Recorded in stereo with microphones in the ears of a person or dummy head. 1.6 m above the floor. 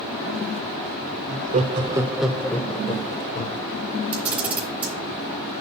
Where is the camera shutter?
5° right (ahead or behind), 1.8 m.